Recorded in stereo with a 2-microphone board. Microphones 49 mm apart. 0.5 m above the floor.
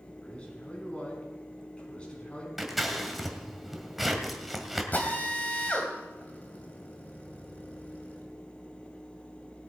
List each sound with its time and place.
0.2 s a man speaking: 25° left (ahead or behind), 5.5 m
2.6 s scissors: centre (ahead or behind), 1.7 m
4.9 s a drill: 35° left (ahead or behind), 2 m